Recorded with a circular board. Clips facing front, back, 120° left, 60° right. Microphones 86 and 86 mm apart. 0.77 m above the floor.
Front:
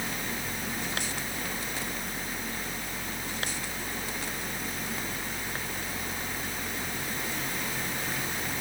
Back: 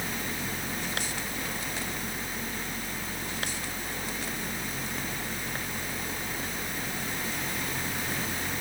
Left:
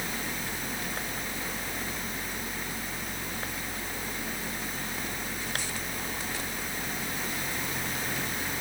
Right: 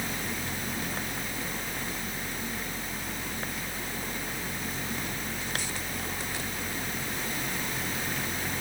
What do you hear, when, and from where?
Only background noise.